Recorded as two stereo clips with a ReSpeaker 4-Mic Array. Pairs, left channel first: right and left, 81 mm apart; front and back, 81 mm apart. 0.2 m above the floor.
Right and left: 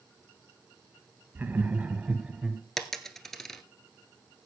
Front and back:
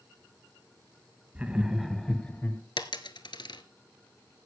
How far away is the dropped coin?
About 1.2 m.